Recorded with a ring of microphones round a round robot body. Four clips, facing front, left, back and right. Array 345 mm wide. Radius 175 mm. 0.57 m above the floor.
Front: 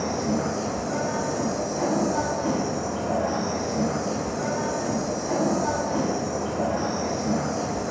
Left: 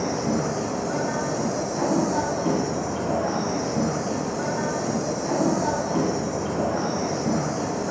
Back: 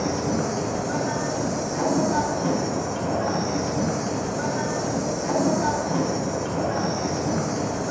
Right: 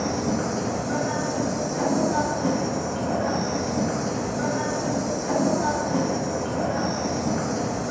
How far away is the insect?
About 1.8 m.